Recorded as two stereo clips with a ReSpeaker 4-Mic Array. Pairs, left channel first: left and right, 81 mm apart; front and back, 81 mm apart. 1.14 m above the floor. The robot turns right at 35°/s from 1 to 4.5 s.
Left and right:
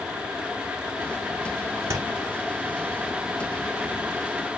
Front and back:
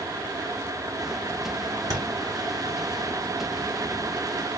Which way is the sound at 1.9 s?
145° right.